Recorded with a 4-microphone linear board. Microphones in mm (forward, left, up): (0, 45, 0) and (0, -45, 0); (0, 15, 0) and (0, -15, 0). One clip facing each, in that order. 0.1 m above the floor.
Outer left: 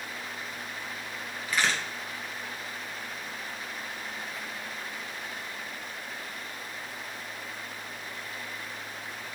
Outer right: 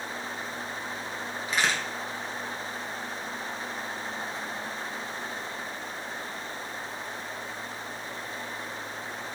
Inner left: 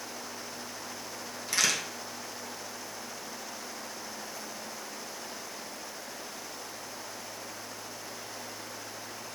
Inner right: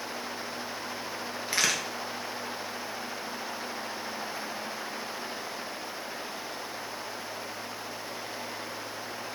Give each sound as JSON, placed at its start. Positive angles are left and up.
{"t": 1.5, "sound": "a crack", "side_deg": -25, "distance_m": 1.4}